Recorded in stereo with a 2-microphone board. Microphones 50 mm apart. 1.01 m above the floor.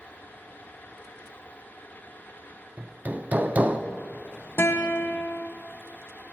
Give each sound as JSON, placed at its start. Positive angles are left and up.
{"t": 2.8, "sound": "hammering", "side_deg": -35, "distance_m": 0.5}
{"t": 4.6, "sound": "a guitar", "side_deg": 60, "distance_m": 1.0}